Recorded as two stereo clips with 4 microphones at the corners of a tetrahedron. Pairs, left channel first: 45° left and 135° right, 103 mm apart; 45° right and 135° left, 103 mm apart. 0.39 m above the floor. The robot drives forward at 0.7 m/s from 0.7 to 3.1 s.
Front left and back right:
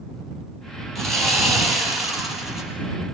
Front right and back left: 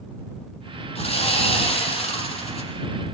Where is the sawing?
45° right, 8.5 m; by 2.7 s 50° right, 7.5 m.